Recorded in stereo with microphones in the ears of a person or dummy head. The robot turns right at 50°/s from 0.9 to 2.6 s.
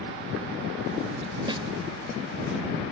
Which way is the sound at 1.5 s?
30° right (ahead or behind).